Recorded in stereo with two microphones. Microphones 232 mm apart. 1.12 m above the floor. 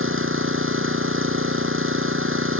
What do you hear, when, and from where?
0.0 s an engine running: 60° right (ahead or behind)